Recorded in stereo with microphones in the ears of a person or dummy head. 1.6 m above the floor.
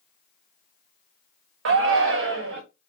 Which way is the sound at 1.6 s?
60° right (ahead or behind).